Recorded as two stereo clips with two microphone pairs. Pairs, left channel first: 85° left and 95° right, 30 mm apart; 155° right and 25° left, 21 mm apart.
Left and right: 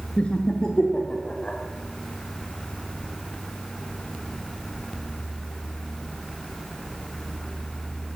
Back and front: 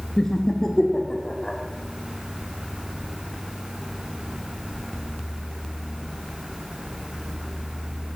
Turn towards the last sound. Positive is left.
turn(degrees=145)